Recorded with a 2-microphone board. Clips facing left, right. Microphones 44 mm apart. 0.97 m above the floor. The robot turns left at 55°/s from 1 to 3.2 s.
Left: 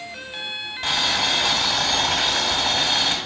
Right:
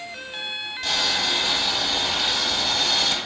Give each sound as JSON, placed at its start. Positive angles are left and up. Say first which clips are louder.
{"t": 0.8, "sound": "boiling", "louder": "left 2 dB", "azimuth_deg": 150, "distance_m": 1.9}